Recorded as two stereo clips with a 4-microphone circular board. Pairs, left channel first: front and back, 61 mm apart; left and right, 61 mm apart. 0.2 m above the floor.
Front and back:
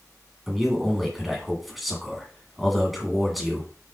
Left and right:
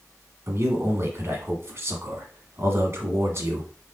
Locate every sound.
0.5 s a man speaking: 90° right, 1.5 m